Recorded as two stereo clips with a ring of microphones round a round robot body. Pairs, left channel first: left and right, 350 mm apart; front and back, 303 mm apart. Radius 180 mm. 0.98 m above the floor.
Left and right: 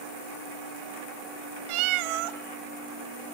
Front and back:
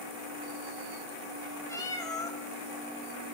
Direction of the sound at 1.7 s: 80° right.